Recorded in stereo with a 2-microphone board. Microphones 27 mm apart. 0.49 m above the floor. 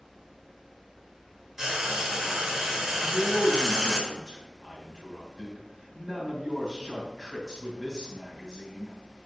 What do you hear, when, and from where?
1.6 s frying: 20° right (ahead or behind), 1.5 m
3.0 s a man speaking: 25° right (ahead or behind), 3.5 m